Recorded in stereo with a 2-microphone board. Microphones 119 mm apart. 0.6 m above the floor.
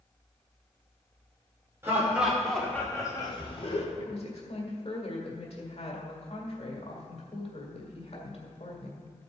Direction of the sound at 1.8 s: 20° right (ahead or behind).